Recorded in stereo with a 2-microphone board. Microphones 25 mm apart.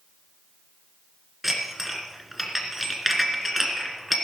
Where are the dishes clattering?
10° right (ahead or behind), 2.5 m.